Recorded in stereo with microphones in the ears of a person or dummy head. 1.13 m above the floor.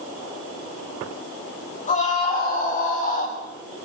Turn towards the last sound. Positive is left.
turn(degrees=45)  # may be behind; listen again after turning